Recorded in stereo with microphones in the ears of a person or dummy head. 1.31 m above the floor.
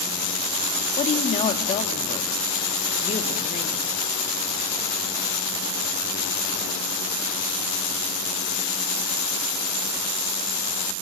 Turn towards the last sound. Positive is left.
turn(degrees=30)  # may be behind; listen again after turning